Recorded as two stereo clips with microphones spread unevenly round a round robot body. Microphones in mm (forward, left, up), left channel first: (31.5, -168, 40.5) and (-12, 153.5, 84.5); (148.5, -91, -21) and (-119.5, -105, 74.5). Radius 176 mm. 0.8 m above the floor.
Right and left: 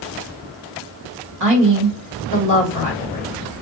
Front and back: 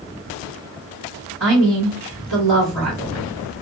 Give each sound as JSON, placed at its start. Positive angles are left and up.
{"t": 1.4, "sound": "a woman speaking", "azimuth_deg": 130, "distance_m": 2.0}